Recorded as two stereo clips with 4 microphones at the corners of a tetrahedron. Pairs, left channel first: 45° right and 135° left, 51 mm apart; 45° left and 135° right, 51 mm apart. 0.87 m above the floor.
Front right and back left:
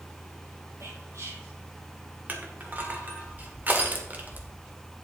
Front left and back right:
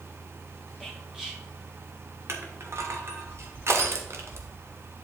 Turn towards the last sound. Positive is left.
turn(degrees=-170)